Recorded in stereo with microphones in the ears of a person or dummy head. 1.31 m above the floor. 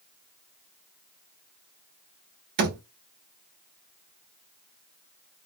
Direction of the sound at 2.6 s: 60° right (ahead or behind).